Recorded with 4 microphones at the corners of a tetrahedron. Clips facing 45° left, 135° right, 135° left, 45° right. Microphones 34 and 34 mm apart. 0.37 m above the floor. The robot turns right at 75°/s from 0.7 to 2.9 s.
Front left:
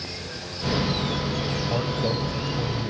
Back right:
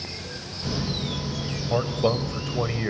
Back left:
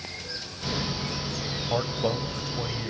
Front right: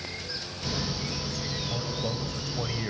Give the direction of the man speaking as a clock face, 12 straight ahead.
7 o'clock.